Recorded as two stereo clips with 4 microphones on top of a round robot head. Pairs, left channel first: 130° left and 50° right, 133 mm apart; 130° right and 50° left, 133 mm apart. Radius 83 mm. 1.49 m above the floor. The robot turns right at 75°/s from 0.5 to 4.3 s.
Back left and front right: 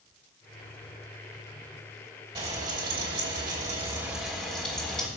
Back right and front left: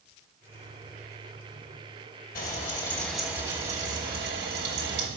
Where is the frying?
100° right, 2.5 m; by 5.1 s 45° left, 2.5 m.